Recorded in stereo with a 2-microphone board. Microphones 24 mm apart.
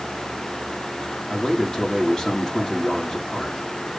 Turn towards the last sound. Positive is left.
turn(degrees=25)  # may be behind; listen again after turning